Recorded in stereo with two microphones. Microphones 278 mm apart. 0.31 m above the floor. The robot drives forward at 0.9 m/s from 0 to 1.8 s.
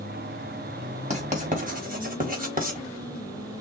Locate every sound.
1.1 s writing: 25° right (ahead or behind), 2.5 m; by 2.9 s 30° right (ahead or behind), 1.8 m